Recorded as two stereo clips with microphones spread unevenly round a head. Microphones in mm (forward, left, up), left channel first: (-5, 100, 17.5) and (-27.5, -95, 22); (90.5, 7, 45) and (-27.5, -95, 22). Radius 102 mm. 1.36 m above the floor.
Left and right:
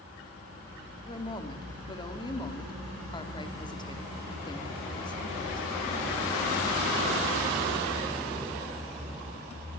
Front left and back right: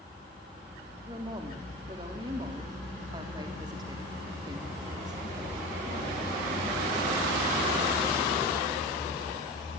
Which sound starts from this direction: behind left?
A woman speaking, at 1.1 s.